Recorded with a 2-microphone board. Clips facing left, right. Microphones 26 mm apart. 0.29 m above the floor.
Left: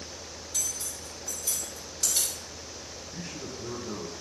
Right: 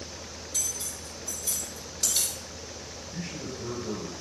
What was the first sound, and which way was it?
Cutlery clinking, 45° right (ahead or behind).